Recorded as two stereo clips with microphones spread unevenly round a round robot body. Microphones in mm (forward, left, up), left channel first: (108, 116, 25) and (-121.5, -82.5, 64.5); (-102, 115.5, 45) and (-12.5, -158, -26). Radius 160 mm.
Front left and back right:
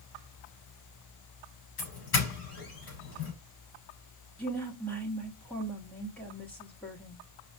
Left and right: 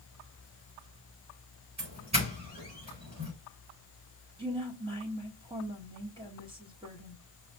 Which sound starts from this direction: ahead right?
A woman speaking, at 4.4 s.